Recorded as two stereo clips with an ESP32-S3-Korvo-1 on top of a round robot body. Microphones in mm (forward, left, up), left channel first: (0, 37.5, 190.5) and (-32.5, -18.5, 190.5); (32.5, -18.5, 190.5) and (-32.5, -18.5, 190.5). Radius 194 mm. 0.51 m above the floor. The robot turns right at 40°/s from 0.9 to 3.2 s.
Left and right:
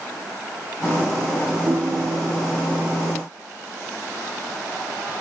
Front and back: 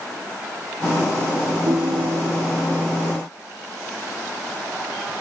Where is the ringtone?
165° right, 1.2 m; by 2.4 s 135° right, 1.2 m.